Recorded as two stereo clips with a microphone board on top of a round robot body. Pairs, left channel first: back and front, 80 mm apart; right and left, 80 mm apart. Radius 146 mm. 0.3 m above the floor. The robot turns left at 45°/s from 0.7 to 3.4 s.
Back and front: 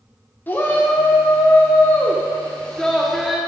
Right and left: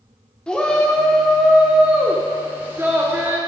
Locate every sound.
0.5 s a shout: 155° right, 1.5 m; by 3.4 s 85° left, 1.5 m